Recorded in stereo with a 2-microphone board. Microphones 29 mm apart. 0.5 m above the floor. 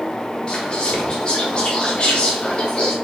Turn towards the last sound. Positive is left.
turn(degrees=30)  # may be behind; listen again after turning